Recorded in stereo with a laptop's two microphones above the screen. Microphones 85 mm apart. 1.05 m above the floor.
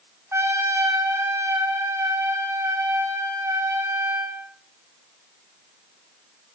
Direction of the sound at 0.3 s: 30° right (ahead or behind).